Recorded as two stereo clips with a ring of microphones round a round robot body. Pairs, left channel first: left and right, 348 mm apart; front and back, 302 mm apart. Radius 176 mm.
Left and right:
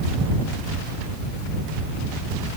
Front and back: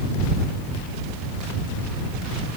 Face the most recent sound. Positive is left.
No sound to turn to.